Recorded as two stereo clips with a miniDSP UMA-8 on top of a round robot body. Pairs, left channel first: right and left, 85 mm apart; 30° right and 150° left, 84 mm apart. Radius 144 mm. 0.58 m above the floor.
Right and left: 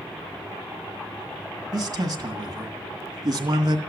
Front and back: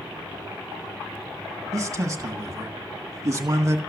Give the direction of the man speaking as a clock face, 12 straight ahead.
8 o'clock.